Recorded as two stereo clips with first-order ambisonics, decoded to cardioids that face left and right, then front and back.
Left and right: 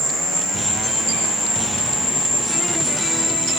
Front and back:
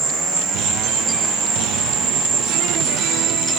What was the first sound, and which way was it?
An insect, 175° left.